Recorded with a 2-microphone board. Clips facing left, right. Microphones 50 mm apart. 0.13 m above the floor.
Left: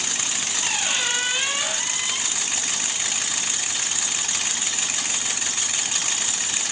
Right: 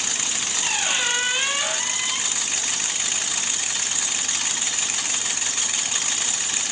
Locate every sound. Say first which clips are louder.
0.6 s a squeak: right 1 dB; 5° right (ahead or behind)